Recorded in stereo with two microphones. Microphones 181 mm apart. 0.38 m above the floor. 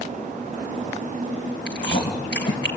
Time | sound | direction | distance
1.7 | chewing | 75° left (ahead or behind) | 3.5 m